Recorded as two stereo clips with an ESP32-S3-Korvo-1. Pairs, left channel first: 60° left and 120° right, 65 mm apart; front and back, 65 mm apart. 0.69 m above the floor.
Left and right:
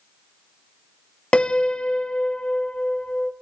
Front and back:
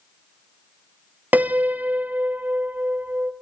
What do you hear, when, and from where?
1.3 s a piano: 130° left, 0.8 m